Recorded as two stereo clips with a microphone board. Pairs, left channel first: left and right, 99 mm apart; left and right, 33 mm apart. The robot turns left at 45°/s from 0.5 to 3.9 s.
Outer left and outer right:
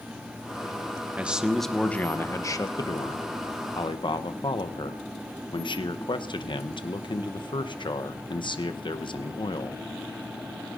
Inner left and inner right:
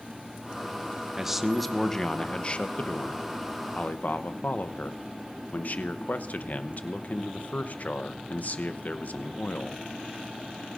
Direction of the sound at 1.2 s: 160° right.